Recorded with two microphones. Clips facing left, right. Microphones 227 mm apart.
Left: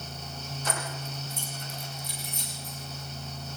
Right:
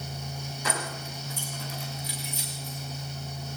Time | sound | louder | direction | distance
0.7 | keys jangling | right 2 dB | 85° right | 8 m